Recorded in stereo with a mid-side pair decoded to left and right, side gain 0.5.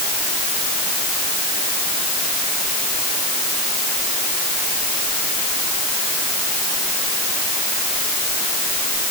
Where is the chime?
I don't hear a chime.